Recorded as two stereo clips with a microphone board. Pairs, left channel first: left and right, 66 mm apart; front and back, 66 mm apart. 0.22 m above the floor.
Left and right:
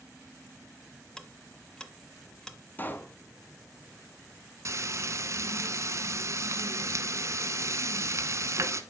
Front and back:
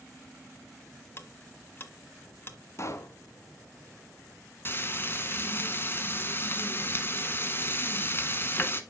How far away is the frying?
About 1.0 m.